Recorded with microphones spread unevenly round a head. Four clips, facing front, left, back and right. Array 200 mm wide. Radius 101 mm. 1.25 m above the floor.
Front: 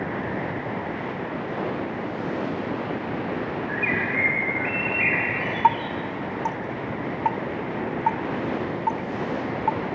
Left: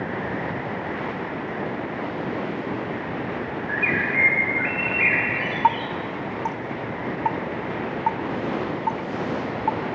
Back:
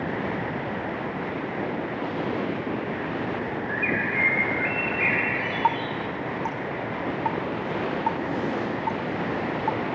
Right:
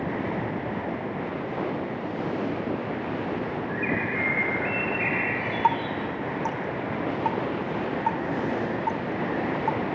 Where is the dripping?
40° left, 0.9 m.